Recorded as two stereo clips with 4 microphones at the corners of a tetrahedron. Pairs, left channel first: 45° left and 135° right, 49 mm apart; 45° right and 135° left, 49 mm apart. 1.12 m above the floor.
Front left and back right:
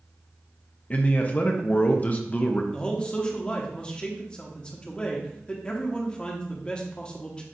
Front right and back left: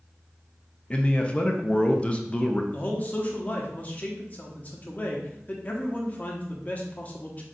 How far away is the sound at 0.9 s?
About 0.6 m.